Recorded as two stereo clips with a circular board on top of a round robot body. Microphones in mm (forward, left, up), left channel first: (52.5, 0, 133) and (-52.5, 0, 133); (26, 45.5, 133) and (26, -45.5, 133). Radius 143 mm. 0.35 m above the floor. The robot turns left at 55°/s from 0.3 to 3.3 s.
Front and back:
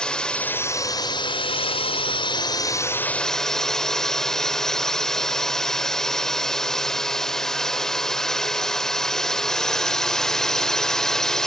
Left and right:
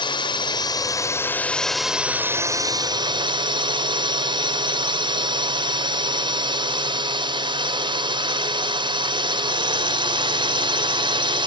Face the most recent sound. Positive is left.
turn(degrees=-85)